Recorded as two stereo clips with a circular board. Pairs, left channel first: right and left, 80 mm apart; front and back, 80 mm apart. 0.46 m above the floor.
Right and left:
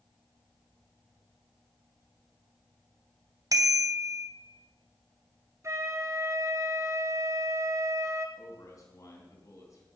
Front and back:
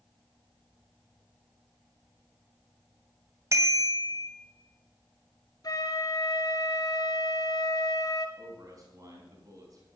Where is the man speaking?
135° right, 4 m.